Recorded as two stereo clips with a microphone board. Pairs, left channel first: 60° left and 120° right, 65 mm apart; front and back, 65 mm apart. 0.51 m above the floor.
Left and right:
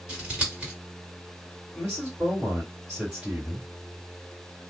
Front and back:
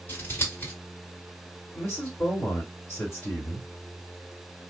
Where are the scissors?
45° right, 1.9 m.